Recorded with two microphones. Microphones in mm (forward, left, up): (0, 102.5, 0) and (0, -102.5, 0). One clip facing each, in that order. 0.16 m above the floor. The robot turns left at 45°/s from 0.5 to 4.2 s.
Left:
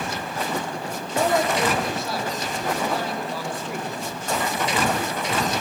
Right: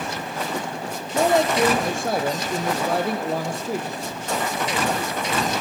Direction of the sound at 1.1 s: 20° right.